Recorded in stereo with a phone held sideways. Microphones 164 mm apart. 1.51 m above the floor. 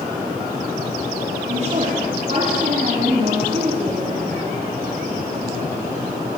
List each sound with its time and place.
1.5 s a woman speaking: 40° right (ahead or behind), 4 m